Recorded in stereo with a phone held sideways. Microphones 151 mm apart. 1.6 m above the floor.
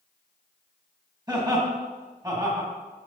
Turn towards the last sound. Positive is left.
turn(degrees=-25)  # may be behind; listen again after turning